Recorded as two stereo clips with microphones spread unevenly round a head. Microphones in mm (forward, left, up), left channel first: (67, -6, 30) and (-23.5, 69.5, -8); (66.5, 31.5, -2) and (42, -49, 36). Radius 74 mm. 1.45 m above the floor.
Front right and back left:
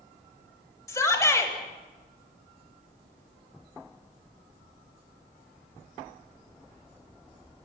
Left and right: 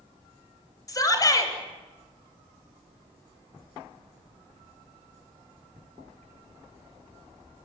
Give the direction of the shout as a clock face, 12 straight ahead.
11 o'clock.